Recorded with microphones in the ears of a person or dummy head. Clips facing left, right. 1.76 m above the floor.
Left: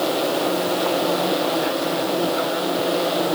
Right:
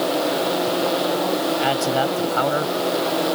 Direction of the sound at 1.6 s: 80° right.